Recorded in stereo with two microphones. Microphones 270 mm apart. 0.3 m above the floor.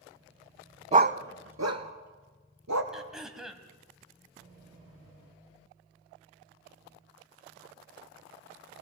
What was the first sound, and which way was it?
A dog barking, 25° right (ahead or behind).